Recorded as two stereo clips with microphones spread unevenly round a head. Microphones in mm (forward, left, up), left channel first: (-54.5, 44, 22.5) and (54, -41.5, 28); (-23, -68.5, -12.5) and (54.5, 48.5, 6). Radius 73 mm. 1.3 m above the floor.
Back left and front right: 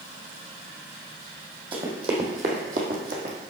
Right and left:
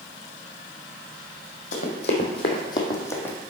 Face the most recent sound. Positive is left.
turn(degrees=-45)